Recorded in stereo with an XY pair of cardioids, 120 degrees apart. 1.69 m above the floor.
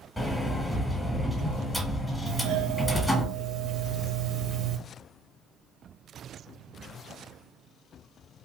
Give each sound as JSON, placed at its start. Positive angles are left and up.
{"t": 0.2, "sound": "a sliding door", "azimuth_deg": 10, "distance_m": 0.9}
{"t": 2.3, "sound": "a doorbell", "azimuth_deg": -65, "distance_m": 0.9}